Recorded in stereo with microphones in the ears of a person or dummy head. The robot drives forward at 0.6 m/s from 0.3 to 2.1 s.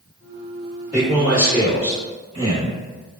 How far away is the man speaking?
About 1.3 m.